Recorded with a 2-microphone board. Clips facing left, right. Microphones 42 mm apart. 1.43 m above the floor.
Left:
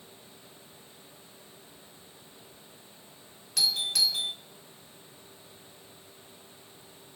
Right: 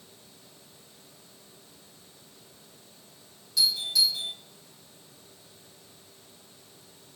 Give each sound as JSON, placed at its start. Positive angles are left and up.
{"t": 3.6, "sound": "a doorbell", "side_deg": 65, "distance_m": 1.6}